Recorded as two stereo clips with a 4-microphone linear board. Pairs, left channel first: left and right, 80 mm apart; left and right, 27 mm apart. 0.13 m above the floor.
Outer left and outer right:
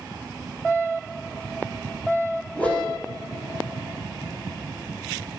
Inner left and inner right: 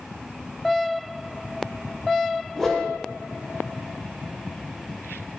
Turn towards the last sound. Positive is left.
turn(degrees=20)  # may be behind; listen again after turning